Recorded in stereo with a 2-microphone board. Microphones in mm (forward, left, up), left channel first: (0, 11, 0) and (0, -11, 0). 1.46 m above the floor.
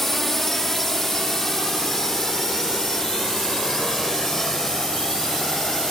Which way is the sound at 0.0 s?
10° left (ahead or behind).